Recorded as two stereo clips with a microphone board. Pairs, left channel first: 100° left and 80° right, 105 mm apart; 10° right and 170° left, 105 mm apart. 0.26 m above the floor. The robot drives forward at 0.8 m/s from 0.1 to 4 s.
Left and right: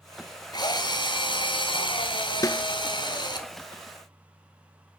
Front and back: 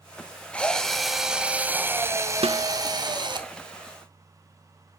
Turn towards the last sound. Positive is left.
turn(degrees=170)